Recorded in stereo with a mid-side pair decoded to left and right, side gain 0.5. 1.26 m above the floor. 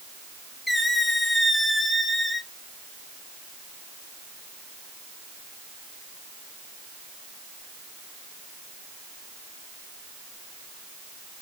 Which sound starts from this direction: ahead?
A squeak, at 0.7 s.